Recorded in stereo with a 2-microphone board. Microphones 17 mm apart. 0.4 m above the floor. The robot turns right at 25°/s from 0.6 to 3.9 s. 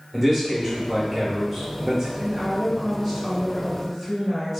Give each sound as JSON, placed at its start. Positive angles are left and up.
{"t": 0.1, "sound": "a man speaking", "side_deg": -15, "distance_m": 0.9}
{"t": 2.2, "sound": "a woman speaking", "azimuth_deg": 140, "distance_m": 1.6}